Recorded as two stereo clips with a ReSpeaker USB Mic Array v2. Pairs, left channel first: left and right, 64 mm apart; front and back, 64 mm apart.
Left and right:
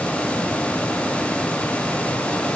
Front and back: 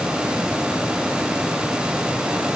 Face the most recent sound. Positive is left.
No sound to turn to.